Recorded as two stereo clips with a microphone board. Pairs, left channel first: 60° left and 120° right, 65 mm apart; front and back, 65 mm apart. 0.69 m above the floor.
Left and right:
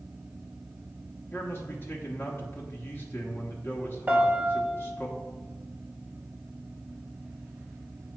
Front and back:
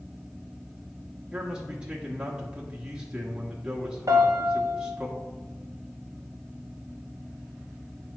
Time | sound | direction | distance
1.3 | a man speaking | 105° left | 1.0 m
4.1 | a piano | 175° left | 0.7 m